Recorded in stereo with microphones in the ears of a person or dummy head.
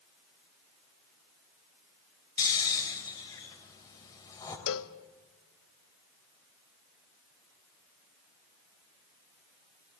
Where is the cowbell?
75° left (ahead or behind), 0.8 m.